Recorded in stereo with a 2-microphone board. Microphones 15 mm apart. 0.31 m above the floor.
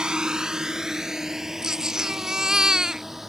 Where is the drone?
55° right (ahead or behind); by 3.3 s 20° right (ahead or behind).